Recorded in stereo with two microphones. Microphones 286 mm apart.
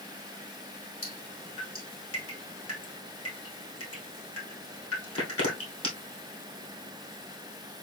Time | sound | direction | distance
1.0 | dripping | 50° left (ahead or behind) | 2.5 m